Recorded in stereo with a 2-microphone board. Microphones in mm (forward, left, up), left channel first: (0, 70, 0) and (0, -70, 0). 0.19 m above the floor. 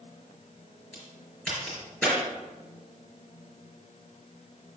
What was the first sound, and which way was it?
A crack, 5° left (ahead or behind).